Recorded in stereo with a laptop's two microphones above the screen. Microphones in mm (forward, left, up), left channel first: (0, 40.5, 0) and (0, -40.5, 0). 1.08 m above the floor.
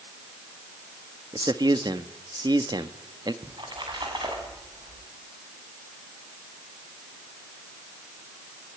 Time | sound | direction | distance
1.3 | a man speaking | 60° right (ahead or behind) | 1.3 m
3.4 | a splash | 85° right | 7 m